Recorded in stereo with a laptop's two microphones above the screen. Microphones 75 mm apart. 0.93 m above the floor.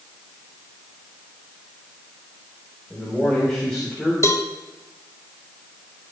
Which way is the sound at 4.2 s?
45° left (ahead or behind).